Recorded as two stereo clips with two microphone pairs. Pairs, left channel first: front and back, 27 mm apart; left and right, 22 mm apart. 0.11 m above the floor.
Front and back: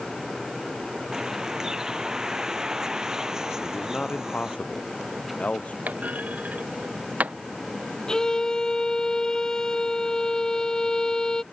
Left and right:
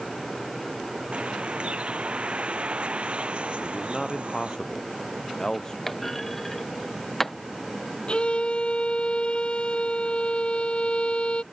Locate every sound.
1.1 s a bird: 110° right
3.6 s a man speaking: 30° left
5.9 s a clunk: 165° left
8.1 s a violin: 65° left